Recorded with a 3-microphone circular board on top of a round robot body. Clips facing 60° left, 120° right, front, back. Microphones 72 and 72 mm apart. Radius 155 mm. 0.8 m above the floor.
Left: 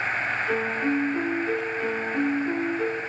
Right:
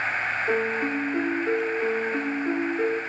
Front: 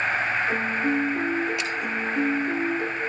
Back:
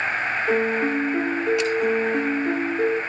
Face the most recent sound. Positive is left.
turn(degrees=-175)